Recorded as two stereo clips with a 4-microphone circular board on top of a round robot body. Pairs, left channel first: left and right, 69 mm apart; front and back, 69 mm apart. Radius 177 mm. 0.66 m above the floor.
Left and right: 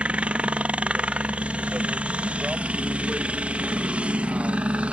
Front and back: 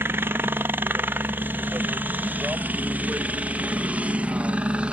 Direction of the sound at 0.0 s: 150° right.